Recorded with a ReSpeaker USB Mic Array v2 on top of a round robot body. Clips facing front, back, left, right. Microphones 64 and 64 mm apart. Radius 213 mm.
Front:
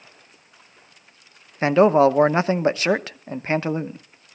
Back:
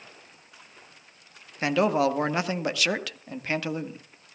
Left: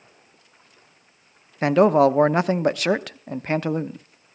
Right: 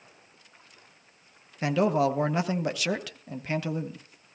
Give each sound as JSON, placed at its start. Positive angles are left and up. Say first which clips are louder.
{"t": 1.6, "sound": "a man speaking", "louder": "front 8 dB, left 8 dB", "azimuth_deg": 55, "distance_m": 1.1}